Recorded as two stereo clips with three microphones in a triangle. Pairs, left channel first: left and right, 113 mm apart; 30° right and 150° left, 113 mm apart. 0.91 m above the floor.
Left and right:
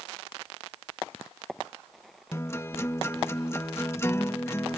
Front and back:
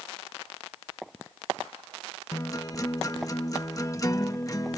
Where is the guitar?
25° left.